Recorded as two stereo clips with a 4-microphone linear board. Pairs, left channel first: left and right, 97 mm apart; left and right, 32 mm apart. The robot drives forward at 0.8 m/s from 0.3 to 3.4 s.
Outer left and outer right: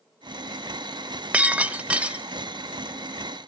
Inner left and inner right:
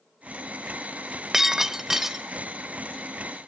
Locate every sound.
1.3 s breaking glass: 15° right (ahead or behind), 0.6 m; by 2.2 s 10° right (ahead or behind), 0.8 m